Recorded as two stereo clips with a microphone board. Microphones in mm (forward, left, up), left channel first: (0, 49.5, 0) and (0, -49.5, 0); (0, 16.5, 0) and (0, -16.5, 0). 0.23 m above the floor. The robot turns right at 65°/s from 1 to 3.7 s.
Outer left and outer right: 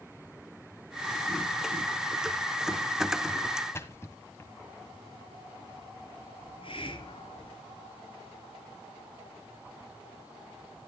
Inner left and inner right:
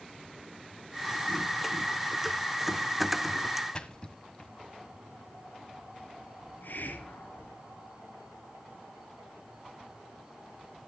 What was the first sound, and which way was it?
A splash, 25° left (ahead or behind).